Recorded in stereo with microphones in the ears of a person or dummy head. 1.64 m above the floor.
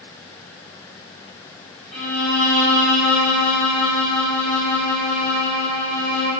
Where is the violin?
5° left (ahead or behind), 1.0 m.